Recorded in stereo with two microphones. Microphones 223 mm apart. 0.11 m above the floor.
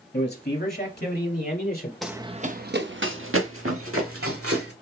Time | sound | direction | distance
0.1 | a man speaking | 35° left (ahead or behind) | 2.0 m
2.0 | running footsteps | centre (ahead or behind) | 0.6 m